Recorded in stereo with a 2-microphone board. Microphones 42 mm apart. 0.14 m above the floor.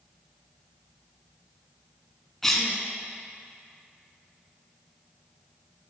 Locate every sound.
2.4 s a cough: 10° left (ahead or behind), 1.0 m